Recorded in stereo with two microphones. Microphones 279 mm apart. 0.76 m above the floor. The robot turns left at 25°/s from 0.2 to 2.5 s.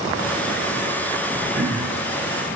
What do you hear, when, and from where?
1.5 s throat clearing: 50° right (ahead or behind), 4 m; by 2.0 s 40° right (ahead or behind), 4 m